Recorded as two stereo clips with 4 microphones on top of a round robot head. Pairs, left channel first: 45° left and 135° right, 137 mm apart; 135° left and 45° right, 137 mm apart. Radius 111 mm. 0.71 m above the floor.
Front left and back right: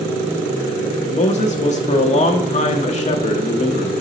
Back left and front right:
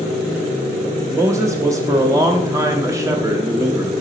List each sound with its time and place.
1.1 s a man speaking: 20° left, 0.8 m